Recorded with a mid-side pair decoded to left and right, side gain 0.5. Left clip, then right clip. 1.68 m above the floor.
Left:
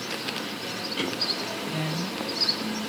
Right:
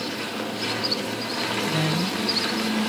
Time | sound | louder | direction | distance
1.7 | a woman speaking | right 6 dB | 30° right | ?